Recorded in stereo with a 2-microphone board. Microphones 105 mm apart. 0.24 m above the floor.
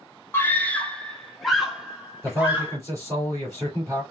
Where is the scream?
20° left (ahead or behind), 1.1 m; by 2.8 s 15° right (ahead or behind), 1.9 m.